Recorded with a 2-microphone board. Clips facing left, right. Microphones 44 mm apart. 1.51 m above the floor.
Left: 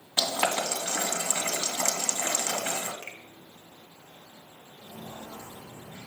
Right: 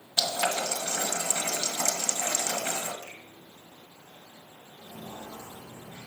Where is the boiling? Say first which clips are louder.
Left 1 dB; 30° left (ahead or behind), 2 m.